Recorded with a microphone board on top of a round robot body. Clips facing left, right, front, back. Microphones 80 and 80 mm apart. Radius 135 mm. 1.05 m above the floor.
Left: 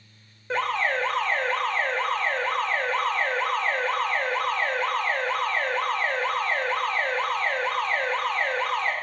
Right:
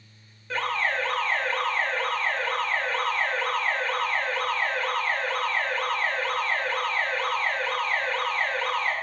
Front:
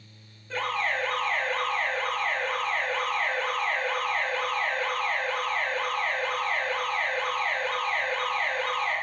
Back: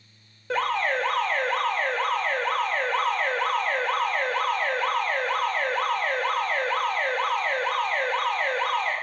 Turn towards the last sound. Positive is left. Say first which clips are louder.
# left 2 dB, back 4 dB
turn(degrees=155)